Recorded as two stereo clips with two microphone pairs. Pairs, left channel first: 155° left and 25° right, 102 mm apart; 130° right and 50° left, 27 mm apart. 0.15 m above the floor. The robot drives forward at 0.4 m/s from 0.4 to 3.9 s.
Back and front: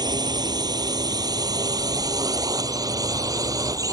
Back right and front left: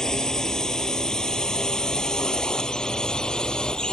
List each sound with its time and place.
0.0 s a drone: 65° right; by 3.9 s 75° right